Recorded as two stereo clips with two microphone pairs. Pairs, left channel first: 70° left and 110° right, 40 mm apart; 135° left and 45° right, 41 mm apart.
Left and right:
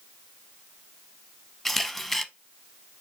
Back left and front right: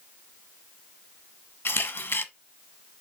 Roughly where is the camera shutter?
Behind left.